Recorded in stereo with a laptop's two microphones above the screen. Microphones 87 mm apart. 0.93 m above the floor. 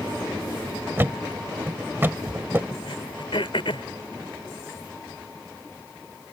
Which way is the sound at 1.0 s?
30° right (ahead or behind).